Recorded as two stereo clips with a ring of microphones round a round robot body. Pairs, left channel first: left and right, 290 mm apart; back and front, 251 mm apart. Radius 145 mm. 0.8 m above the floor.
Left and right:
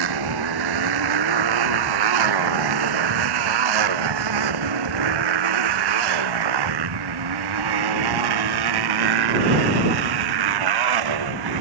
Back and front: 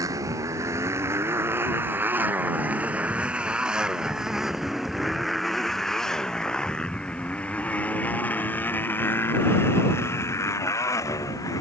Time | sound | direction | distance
0.0 | a motorcycle | 80° right | ?